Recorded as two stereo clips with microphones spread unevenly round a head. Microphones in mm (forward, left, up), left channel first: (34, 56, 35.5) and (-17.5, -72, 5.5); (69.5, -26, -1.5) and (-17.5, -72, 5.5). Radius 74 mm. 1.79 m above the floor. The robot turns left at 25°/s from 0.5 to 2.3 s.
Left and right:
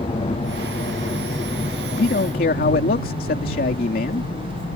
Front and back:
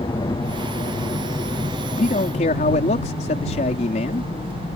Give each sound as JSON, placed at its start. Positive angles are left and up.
{"t": 0.0, "sound": "a helicopter", "azimuth_deg": 30}
{"t": 1.9, "sound": "a man speaking", "azimuth_deg": 55}